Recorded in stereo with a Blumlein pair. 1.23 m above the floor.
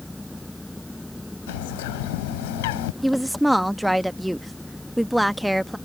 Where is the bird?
50° left.